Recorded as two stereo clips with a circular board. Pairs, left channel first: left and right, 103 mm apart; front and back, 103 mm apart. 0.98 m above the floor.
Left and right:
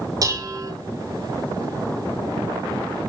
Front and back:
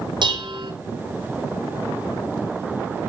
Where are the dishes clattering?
140° right, 2.5 m.